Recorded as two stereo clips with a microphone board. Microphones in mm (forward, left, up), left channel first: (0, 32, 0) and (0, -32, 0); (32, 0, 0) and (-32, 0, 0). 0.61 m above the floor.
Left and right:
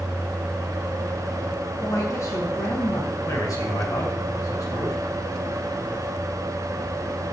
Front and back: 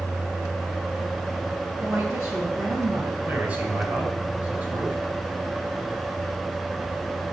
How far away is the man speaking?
About 4.5 m.